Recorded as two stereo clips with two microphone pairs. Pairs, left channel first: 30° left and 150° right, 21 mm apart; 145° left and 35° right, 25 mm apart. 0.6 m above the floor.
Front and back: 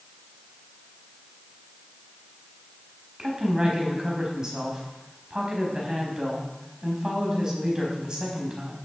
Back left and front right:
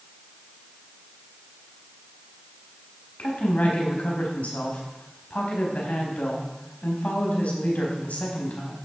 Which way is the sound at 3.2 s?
155° left.